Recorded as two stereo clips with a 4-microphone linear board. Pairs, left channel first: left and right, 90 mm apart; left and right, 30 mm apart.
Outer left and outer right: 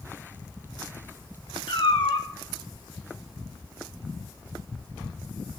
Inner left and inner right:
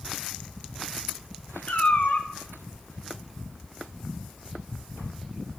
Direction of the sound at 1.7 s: 65° left (ahead or behind).